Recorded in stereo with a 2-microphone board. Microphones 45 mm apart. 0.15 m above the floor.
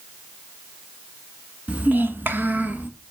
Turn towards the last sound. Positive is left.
turn(degrees=-35)  # may be behind; listen again after turning